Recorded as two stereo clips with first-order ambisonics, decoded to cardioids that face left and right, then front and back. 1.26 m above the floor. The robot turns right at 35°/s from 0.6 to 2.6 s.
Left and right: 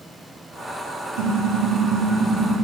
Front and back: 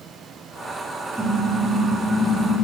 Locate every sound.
1.2 s a car horn: 95° right, 8 m; by 2.6 s 45° right, 8 m